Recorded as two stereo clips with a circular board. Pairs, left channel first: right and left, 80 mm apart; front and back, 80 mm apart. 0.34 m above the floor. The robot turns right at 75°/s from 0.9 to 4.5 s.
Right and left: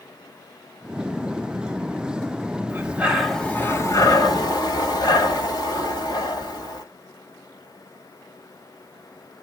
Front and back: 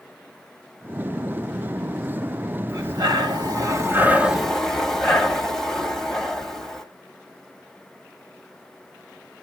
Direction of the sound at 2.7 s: 140° left.